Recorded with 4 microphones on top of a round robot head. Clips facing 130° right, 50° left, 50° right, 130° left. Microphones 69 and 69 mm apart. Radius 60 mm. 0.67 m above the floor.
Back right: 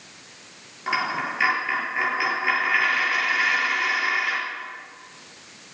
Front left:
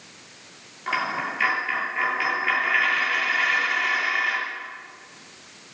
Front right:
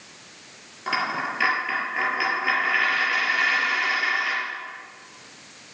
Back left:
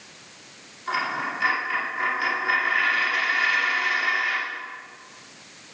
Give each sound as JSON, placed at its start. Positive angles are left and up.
{"t": 0.9, "sound": "a dropped coin", "azimuth_deg": -50, "distance_m": 6.0}